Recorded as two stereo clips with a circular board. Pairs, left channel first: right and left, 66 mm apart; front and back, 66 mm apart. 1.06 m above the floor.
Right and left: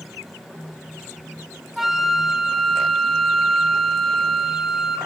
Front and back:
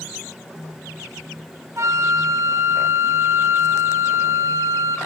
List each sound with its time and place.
1.8 s a flute: straight behind, 0.7 m